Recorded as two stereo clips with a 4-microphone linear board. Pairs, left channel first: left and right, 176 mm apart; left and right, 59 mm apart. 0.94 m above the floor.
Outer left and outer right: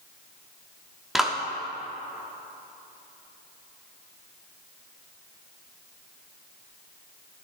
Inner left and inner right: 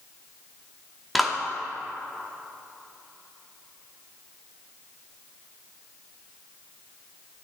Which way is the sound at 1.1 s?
Centre (ahead or behind).